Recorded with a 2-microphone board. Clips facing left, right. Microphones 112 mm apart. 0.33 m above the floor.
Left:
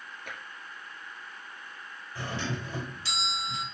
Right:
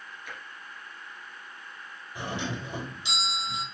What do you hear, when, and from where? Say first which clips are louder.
0.3 s tapping: even; 55° left (ahead or behind), 2 m
2.1 s a doorbell: right 1 dB; 20° right (ahead or behind), 2 m